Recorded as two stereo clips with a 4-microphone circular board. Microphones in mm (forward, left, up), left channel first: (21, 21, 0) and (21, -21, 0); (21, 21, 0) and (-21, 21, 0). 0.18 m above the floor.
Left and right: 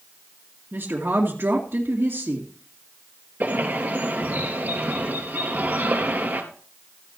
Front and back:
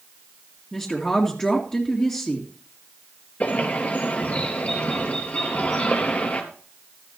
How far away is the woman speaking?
About 2.5 m.